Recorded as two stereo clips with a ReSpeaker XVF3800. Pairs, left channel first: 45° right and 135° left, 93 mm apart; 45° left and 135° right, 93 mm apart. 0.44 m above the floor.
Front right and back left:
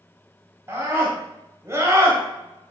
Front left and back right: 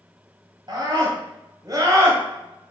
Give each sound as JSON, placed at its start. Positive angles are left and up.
{"t": 0.7, "sound": "a scream", "azimuth_deg": -165, "distance_m": 3.0}